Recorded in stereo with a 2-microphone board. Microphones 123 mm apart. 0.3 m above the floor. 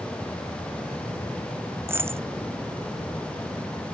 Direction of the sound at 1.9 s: 20° right (ahead or behind).